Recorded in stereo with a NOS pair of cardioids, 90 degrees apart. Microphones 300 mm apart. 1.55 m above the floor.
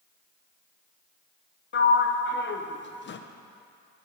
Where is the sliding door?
40° left, 0.9 m.